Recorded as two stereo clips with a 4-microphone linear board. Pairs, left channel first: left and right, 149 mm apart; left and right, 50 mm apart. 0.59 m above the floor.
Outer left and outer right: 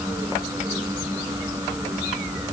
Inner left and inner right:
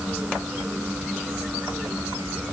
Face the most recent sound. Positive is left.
No sound to turn to.